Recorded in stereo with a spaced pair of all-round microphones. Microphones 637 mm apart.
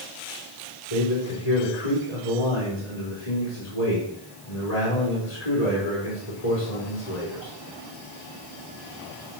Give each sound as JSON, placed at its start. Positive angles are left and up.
{"t": 0.9, "sound": "a man speaking", "side_deg": 70, "distance_m": 4.0}